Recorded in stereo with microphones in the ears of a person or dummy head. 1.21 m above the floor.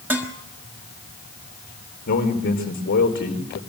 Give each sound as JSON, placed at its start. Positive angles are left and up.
{"t": 0.1, "sound": "dishes clattering", "side_deg": -10, "distance_m": 1.5}
{"t": 2.1, "sound": "a man speaking", "side_deg": 60, "distance_m": 4.0}